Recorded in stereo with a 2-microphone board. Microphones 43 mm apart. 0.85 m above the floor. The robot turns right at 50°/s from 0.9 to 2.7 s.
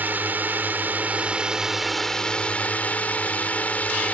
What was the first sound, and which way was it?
A drone, 50° right.